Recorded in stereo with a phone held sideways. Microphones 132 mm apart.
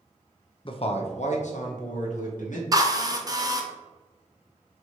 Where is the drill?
30° right (ahead or behind), 0.6 m.